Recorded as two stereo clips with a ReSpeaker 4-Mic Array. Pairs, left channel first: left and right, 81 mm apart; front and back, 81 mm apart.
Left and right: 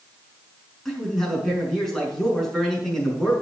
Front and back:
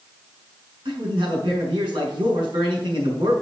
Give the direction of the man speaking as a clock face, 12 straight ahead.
6 o'clock.